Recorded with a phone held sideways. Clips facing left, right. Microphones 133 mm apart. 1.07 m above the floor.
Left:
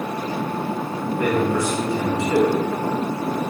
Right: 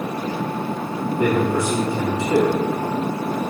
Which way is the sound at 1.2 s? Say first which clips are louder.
Right 1 dB; 25° right (ahead or behind).